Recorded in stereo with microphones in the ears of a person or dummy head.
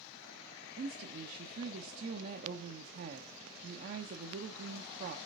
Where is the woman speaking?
50° right (ahead or behind), 0.7 m.